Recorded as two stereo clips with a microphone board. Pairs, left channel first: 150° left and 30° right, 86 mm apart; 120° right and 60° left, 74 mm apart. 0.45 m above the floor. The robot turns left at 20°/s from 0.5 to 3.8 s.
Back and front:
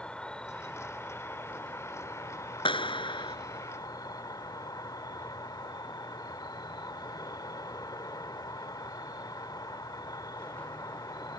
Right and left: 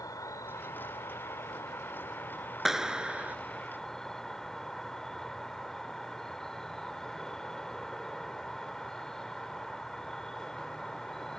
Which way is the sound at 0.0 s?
135° right.